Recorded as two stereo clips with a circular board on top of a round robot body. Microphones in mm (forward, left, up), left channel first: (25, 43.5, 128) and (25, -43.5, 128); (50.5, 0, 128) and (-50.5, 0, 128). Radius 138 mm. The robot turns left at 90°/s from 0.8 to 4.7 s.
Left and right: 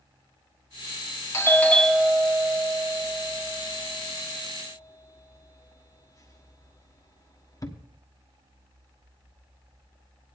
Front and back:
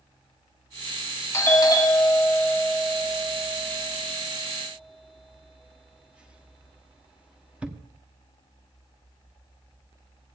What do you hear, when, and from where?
1.3 s a doorbell: 50° left, 1.4 m; by 7.8 s 105° left, 1.4 m